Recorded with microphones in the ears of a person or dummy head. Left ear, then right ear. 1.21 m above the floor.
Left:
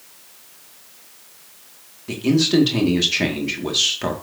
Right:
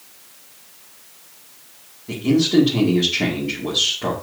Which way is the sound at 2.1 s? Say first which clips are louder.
Even; 65° left (ahead or behind).